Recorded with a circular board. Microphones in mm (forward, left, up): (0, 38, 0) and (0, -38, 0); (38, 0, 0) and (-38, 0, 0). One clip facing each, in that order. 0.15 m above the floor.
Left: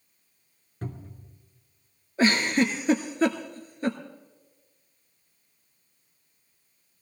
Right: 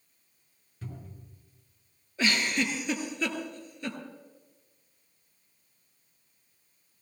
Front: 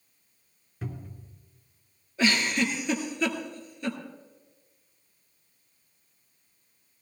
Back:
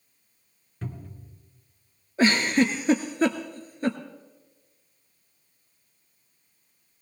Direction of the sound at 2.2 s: 135° left.